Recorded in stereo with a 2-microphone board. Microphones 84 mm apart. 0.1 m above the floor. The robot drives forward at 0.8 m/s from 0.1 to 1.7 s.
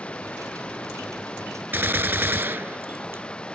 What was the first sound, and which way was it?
Running water, 15° left (ahead or behind).